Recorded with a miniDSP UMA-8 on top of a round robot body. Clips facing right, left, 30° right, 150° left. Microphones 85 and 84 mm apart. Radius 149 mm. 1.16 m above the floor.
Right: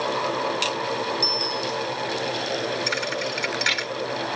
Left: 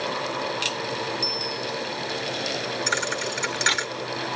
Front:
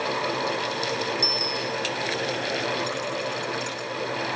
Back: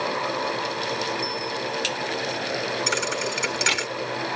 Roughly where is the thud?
Behind left.